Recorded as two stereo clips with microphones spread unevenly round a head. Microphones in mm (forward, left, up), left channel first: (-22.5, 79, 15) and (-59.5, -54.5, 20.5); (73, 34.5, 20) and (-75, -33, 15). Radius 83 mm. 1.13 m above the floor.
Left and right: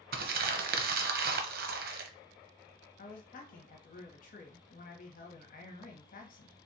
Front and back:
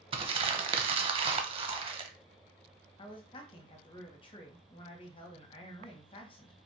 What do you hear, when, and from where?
0.1 s crumpling: 100° right, 0.7 m
3.0 s a man speaking: 80° left, 1.3 m